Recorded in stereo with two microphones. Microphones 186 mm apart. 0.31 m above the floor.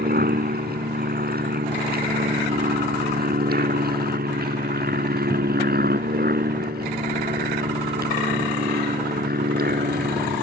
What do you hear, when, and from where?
0.0 s an aircraft: 55° right (ahead or behind)